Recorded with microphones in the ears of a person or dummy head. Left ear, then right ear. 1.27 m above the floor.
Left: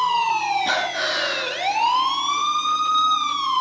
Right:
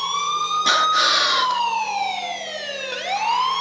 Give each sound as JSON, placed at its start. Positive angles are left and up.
{"t": 0.7, "sound": "breathing", "side_deg": -40, "distance_m": 3.0}